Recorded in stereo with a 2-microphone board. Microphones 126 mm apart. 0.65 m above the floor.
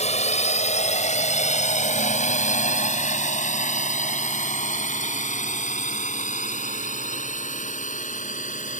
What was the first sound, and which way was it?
A drone, 60° left (ahead or behind).